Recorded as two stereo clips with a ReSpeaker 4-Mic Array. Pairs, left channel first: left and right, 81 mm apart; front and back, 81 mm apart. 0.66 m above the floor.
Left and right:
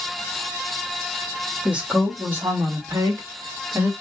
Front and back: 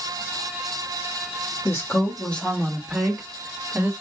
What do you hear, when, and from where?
1.6 s a woman speaking: 20° right, 1.2 m; by 3.9 s 130° right, 1.6 m